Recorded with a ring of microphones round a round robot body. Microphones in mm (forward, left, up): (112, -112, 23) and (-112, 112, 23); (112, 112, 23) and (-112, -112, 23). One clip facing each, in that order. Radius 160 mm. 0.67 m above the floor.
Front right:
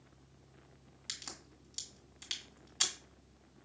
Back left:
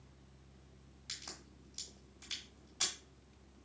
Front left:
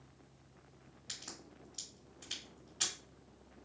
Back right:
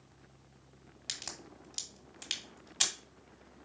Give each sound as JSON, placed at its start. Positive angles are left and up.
{"t": 1.1, "sound": "a crack", "azimuth_deg": -115, "distance_m": 1.7}